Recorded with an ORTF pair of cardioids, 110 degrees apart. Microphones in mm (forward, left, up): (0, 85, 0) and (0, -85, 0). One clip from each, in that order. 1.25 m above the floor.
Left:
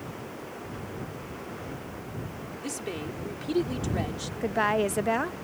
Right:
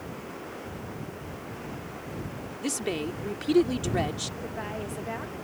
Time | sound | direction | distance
2.6 | a woman speaking | 35° right | ?
4.4 | a woman speaking | 60° left | ?